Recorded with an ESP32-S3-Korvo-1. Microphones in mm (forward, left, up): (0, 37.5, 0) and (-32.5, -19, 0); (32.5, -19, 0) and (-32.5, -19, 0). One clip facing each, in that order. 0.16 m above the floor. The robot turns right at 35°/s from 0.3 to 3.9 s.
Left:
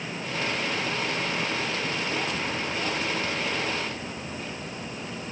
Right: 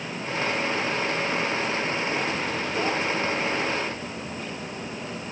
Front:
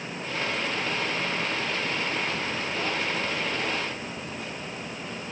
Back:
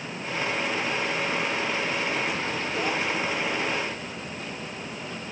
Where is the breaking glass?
No breaking glass in this recording.